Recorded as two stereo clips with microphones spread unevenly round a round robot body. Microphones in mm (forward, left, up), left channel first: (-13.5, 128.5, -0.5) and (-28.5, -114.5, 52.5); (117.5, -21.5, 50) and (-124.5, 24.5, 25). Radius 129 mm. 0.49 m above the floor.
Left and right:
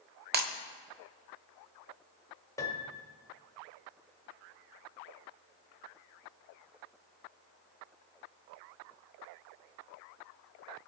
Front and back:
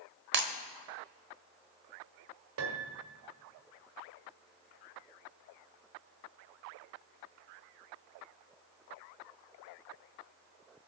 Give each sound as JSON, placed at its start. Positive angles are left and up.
{"t": 0.3, "sound": "breaking glass", "azimuth_deg": -150, "distance_m": 1.2}
{"t": 2.6, "sound": "a piano", "azimuth_deg": 155, "distance_m": 1.5}